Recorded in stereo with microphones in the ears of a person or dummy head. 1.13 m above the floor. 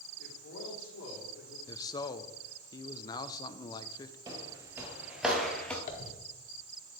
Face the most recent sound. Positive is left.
turn(degrees=40)  # may be behind; listen again after turning